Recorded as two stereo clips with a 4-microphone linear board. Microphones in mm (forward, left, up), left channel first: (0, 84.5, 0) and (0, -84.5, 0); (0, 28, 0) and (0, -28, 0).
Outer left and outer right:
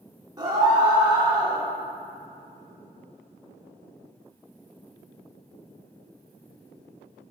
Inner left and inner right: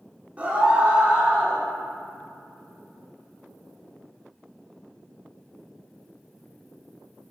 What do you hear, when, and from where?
0.4 s a scream: 25° right (ahead or behind), 0.9 m